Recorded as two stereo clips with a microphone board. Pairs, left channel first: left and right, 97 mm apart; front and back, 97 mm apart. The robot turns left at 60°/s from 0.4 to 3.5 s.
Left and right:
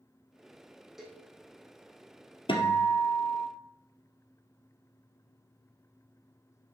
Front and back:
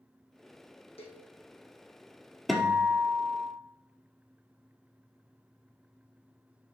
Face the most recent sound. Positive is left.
turn(degrees=30)